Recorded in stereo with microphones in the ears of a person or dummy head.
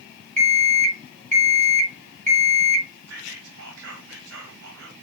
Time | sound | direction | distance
0.4 | an alarm clock | 40° right (ahead or behind) | 2 m
3.1 | whispering | 75° right (ahead or behind) | 3 m